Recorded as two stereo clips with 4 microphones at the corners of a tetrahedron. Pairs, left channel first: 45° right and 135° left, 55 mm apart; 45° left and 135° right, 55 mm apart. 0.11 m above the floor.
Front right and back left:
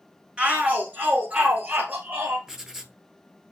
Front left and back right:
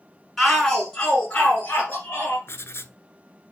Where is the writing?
55° left, 0.6 m.